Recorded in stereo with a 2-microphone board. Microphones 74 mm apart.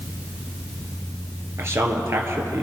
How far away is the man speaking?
About 2.5 m.